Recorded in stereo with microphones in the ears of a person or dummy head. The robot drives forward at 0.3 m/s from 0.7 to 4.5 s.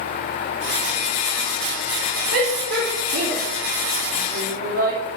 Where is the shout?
70° right (ahead or behind), 2.5 m; by 5.2 s 85° right, 2.5 m.